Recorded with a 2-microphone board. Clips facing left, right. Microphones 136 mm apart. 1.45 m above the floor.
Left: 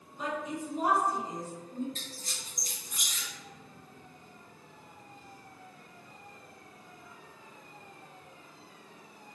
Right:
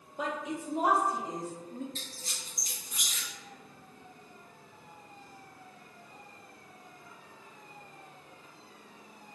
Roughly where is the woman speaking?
Right.